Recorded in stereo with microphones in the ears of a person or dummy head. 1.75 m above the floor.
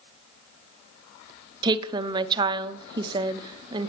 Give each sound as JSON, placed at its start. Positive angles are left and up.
{"t": 1.6, "sound": "a woman speaking", "side_deg": -20, "distance_m": 1.0}